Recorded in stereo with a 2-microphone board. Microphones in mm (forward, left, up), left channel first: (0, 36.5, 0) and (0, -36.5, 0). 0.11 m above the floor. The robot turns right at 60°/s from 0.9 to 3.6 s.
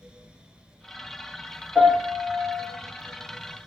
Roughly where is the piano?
Centre.